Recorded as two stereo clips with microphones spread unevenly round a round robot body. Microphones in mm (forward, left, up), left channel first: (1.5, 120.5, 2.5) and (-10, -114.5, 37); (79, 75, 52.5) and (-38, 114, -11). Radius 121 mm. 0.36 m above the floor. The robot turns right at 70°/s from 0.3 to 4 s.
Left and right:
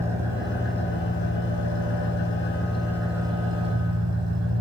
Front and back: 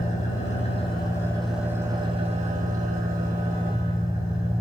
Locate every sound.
0.0 s an engine running: 15° right, 3.5 m; by 4.6 s 115° right, 3.5 m